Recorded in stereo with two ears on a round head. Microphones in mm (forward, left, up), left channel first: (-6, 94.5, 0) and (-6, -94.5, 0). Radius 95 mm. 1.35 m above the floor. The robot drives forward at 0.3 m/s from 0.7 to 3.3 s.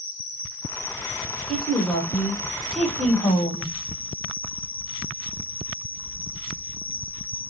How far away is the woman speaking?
About 1.3 m.